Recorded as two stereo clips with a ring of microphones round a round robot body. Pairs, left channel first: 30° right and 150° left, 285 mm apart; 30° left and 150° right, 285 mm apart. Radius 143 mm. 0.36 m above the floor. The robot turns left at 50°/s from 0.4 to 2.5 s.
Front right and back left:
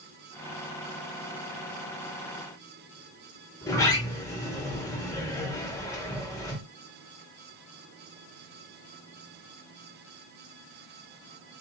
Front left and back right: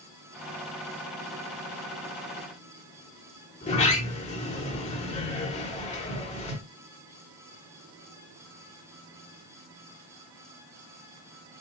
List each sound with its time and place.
3.6 s a sliding door: 30° left, 1.0 m